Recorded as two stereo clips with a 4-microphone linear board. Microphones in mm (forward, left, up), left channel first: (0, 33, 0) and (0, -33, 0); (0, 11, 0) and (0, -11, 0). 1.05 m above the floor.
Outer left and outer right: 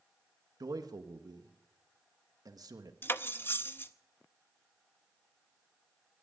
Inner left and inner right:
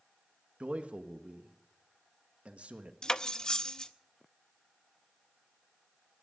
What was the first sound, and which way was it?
A man speaking, 70° right (ahead or behind).